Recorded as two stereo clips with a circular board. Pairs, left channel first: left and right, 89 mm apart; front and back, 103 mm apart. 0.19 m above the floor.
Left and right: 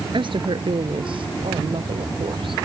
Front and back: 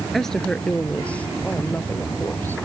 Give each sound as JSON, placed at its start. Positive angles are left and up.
{"t": 0.1, "sound": "a woman speaking", "azimuth_deg": -85}